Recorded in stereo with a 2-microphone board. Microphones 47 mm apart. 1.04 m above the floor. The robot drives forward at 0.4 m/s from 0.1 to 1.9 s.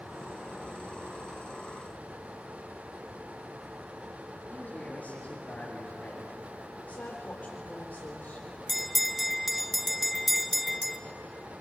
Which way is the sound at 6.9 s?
50° left (ahead or behind).